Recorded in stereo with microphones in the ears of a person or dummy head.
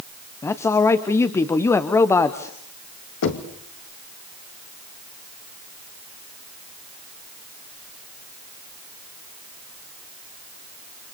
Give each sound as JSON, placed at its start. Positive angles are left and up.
{"t": 0.4, "sound": "a man speaking", "side_deg": 15, "distance_m": 1.0}
{"t": 3.2, "sound": "knocking", "side_deg": 65, "distance_m": 2.5}